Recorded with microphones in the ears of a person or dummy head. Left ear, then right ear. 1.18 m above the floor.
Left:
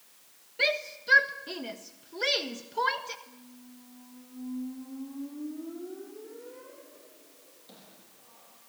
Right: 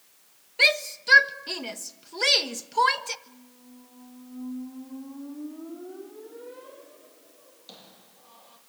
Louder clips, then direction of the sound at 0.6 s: Right 7 dB; 35° right (ahead or behind).